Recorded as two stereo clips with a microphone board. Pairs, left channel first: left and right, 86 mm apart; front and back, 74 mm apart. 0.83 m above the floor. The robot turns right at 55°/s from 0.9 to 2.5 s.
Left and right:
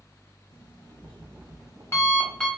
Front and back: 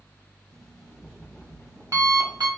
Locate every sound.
0.5 s an alarm clock: 90° left, 1.1 m; by 2.5 s straight behind, 1.1 m